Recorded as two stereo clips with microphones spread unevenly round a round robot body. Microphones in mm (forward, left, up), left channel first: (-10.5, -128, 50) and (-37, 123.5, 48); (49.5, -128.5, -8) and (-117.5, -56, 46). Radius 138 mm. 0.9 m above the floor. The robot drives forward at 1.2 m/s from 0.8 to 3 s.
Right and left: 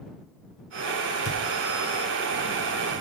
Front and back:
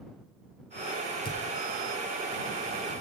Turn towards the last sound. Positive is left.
turn(degrees=-85)